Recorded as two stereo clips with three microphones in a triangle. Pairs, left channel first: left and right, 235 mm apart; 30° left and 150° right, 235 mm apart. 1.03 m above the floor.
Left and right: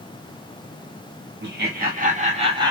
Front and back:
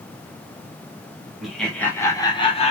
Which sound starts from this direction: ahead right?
Laughter, at 1.4 s.